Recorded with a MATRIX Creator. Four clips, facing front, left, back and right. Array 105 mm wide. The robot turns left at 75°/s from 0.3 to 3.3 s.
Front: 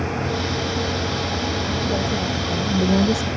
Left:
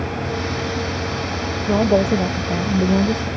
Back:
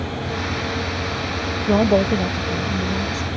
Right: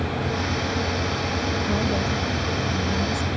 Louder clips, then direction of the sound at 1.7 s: Left 13 dB, back 11 dB; 150° left.